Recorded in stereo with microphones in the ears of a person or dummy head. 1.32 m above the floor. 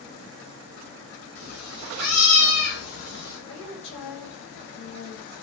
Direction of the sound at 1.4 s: 70° left (ahead or behind).